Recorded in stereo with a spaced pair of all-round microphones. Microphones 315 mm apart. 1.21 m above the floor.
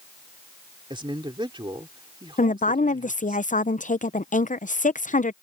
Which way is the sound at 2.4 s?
25° left (ahead or behind).